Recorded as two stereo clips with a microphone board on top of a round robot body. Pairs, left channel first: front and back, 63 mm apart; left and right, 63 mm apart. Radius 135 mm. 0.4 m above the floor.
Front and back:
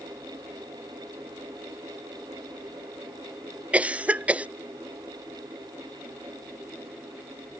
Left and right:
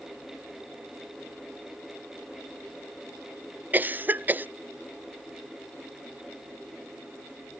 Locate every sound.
3.7 s a cough: 125° right